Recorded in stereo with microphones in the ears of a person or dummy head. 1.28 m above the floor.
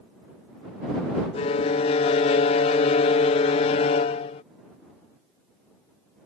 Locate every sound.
1.3 s a violin: 35° left (ahead or behind)